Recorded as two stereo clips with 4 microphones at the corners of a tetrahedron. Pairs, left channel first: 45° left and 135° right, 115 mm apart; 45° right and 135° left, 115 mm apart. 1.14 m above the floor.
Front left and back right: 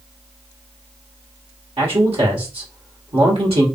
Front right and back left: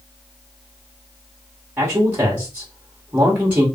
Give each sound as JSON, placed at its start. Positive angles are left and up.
{"t": 1.8, "sound": "a man speaking", "azimuth_deg": -150, "distance_m": 1.6}